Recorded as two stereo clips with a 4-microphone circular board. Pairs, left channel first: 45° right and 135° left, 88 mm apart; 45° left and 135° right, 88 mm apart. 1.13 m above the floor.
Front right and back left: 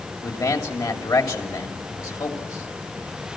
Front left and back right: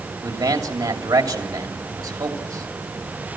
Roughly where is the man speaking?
Right.